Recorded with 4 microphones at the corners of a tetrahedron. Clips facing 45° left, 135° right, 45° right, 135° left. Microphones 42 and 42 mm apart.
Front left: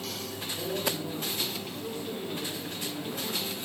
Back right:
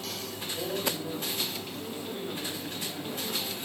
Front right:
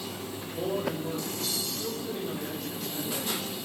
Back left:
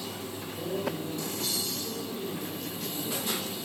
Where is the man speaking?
65° right, 9.5 m.